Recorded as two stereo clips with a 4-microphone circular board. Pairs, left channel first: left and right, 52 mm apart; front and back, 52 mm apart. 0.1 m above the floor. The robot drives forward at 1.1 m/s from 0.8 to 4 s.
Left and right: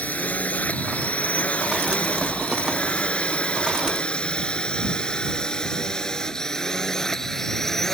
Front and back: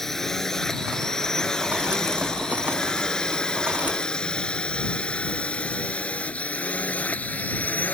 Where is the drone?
75° left; by 7.9 s 10° left.